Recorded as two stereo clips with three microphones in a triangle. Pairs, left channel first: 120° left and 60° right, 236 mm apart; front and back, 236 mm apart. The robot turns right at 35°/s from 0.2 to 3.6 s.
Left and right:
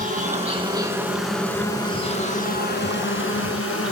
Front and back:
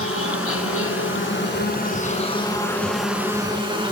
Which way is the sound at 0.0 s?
10° right.